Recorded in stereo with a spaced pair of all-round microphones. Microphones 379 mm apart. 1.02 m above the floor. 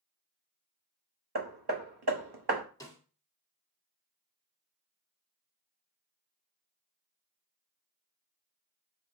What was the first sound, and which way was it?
Hammering, 80° right.